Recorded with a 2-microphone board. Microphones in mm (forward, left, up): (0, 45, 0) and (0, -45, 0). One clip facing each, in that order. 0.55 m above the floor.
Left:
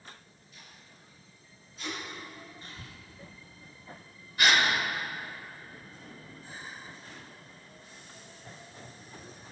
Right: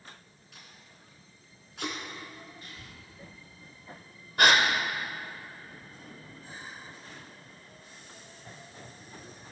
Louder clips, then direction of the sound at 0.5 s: Right 1 dB; 75° right (ahead or behind).